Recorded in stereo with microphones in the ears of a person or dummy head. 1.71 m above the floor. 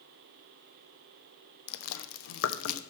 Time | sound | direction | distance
1.7 | chewing | 70° left (ahead or behind) | 0.5 m